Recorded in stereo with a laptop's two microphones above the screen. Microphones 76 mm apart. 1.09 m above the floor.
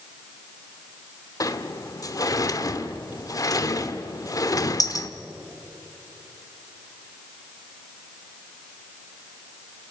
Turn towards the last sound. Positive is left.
turn(degrees=50)  # may be behind; listen again after turning